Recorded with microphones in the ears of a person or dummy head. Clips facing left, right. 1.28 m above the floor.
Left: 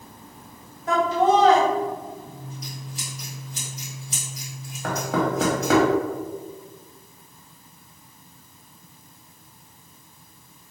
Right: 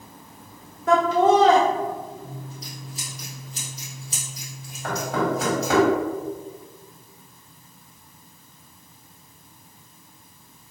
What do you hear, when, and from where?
0.9 s laughter: 55° right (ahead or behind), 0.6 m
2.2 s scissors: 35° right (ahead or behind), 1.7 m
4.8 s knocking: 65° left (ahead or behind), 1.4 m